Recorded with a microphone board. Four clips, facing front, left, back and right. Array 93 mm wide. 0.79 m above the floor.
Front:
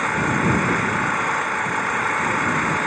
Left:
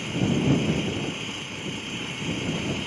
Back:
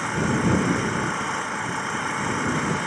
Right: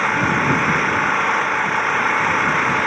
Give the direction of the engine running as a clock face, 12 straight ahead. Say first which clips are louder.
Right 7 dB, front 3 dB; 2 o'clock.